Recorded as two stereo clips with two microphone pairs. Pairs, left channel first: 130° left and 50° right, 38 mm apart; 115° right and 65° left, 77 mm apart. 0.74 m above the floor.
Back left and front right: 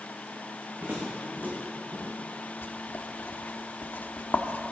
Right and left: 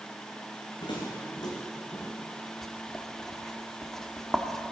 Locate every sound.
0.8 s footsteps: 105° right, 2.5 m; by 2.5 s 35° right, 1.4 m
2.6 s writing: 165° left, 0.7 m